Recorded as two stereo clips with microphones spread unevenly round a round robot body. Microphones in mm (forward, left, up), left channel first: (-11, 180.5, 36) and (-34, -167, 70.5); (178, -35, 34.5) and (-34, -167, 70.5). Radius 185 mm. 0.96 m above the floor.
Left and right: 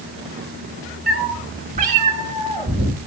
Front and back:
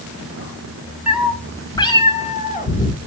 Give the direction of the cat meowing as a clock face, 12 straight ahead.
3 o'clock.